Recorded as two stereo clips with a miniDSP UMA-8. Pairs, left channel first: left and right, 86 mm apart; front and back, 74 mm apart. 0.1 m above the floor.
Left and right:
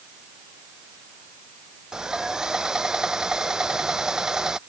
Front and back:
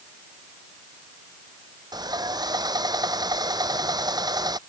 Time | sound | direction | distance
1.9 | sawing | 170° right | ?